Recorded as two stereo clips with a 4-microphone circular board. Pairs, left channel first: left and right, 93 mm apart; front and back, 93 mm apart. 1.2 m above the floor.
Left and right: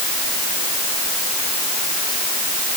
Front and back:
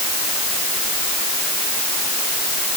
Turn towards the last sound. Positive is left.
No sound to turn to.